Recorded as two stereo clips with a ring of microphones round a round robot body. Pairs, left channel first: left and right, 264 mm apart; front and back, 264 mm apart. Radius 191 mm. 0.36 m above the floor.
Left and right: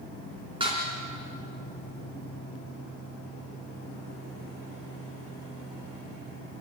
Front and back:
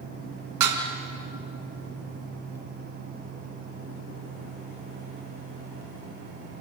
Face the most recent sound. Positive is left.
turn(degrees=-165)